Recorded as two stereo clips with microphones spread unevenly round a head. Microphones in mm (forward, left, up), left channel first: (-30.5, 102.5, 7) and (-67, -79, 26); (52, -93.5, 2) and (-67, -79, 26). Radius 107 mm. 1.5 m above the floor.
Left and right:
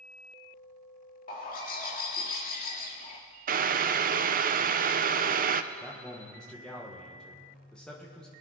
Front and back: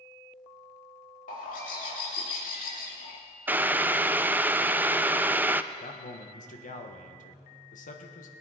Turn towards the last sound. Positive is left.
turn(degrees=-10)